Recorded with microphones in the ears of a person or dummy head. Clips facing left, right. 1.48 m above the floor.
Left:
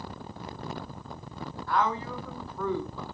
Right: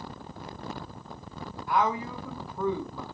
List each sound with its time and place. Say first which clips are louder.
1.7 s a woman speaking: right 1 dB; 15° right (ahead or behind), 0.8 m